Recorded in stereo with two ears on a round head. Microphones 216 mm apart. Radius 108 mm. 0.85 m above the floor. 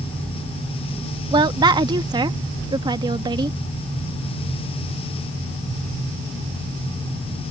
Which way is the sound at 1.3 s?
20° right (ahead or behind).